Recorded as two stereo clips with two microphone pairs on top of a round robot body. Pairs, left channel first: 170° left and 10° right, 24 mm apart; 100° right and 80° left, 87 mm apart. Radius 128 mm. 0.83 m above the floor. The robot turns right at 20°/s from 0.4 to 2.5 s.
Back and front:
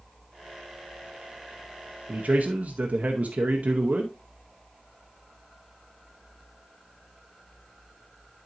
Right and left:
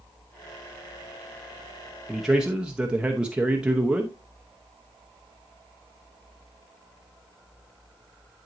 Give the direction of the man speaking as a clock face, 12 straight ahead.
12 o'clock.